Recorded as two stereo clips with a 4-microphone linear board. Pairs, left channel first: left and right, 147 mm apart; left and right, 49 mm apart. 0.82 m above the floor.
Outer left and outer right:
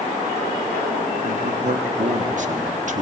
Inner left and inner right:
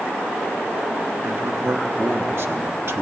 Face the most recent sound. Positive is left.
turn(degrees=-60)  # may be behind; listen again after turning